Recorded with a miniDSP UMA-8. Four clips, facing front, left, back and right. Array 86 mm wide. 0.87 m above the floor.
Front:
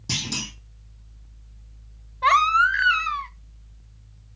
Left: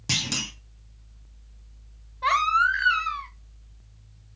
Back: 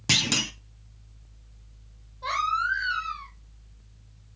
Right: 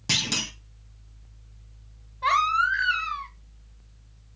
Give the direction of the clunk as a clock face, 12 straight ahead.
6 o'clock.